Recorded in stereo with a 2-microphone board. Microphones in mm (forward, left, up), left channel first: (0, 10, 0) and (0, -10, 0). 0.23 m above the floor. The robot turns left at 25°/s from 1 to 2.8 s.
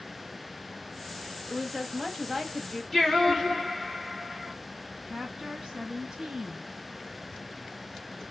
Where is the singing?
5° right (ahead or behind), 2.5 m.